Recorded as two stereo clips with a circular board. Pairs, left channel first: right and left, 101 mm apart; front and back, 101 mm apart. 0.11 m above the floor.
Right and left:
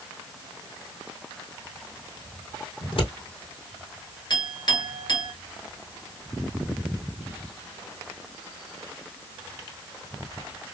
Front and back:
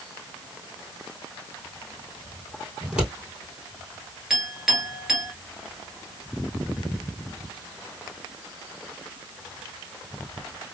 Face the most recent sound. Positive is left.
turn(degrees=-100)